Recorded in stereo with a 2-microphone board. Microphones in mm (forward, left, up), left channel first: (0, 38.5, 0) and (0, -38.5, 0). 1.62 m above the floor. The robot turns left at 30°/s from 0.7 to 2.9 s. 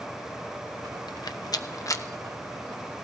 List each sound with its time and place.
1.1 s a rattle: 70° left (ahead or behind), 0.6 m; by 2.0 s 40° left (ahead or behind), 0.6 m